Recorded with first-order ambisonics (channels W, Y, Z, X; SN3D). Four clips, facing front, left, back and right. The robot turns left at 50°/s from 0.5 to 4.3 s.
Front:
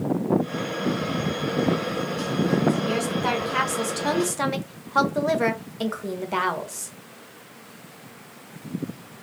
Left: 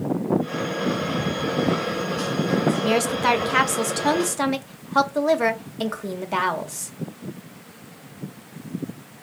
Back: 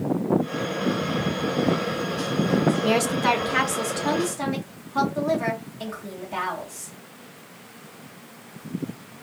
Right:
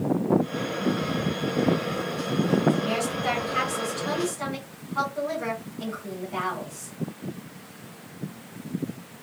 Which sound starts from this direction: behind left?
A woman speaking, at 2.8 s.